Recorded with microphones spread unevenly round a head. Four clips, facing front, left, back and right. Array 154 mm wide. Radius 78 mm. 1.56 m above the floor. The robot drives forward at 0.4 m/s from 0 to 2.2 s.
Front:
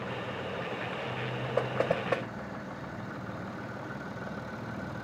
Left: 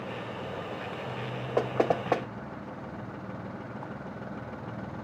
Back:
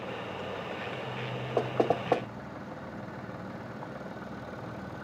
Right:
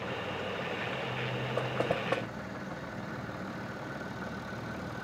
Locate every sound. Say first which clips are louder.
1.6 s knocking: left 7 dB, back 2 dB; 140° left, 2 m; by 2.3 s 145° left, 2.5 m